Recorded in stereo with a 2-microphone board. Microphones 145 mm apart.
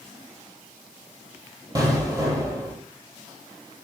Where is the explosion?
30° right (ahead or behind), 1.3 m.